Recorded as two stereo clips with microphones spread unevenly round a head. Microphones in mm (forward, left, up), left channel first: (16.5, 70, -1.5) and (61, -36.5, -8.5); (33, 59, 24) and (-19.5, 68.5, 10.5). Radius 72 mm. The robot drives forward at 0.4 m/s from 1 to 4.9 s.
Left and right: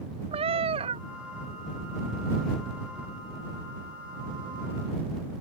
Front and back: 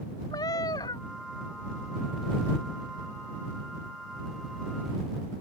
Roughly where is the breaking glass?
No breaking glass in this recording.